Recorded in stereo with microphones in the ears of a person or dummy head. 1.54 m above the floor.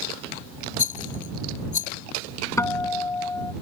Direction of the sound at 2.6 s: 15° left (ahead or behind).